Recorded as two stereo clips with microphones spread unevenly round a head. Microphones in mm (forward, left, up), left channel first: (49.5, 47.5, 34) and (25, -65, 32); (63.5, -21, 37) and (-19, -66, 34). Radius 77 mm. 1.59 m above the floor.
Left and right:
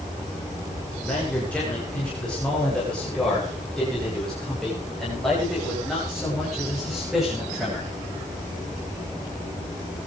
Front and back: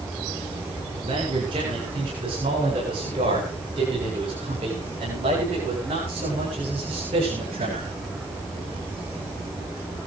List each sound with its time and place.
1.0 s a man speaking: 160° left, 8.5 m; by 7.9 s 170° left, 13 m